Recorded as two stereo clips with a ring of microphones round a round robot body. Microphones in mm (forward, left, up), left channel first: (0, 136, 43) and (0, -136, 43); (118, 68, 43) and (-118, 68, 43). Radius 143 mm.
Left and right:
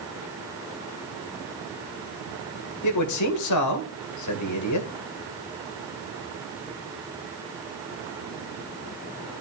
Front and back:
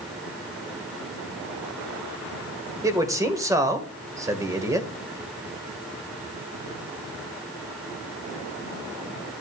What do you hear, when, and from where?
2.8 s a man speaking: 105° left, 2 m